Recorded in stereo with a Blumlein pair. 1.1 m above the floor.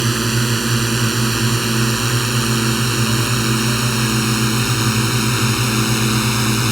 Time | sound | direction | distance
0.0 | a drone | 5° right | ?